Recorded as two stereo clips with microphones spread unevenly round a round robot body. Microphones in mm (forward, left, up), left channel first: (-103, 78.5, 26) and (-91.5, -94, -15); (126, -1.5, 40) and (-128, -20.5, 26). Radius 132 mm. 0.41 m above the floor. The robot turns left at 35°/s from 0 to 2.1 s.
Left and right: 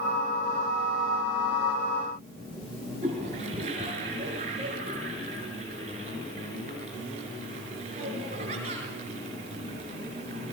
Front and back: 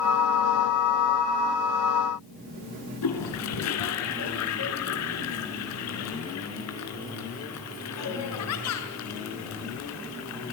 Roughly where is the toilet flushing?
Ahead.